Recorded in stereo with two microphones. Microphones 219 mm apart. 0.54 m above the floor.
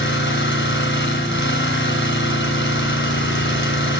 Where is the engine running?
60° left (ahead or behind), 3 m.